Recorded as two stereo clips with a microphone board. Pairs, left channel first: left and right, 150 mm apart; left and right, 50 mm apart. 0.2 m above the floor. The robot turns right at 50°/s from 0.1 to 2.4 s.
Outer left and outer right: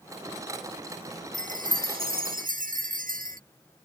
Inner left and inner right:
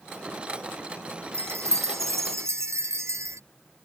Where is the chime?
125° right; by 3.4 s 70° right.